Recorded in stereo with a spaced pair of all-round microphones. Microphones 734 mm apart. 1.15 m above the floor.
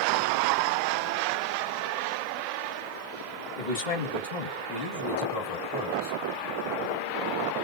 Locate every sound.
3.6 s a man speaking: 80° left, 1.7 m; by 6.2 s 65° left (ahead or behind), 3 m